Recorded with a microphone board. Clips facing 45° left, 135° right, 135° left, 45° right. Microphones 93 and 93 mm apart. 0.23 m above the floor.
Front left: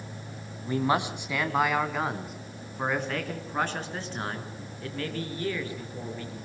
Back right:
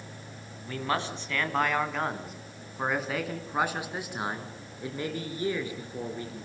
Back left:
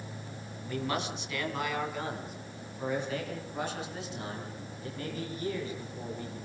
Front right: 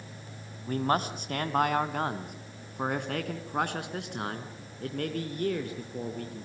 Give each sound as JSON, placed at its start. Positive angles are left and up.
{"t": 0.7, "sound": "a man speaking", "azimuth_deg": -20, "distance_m": 2.0}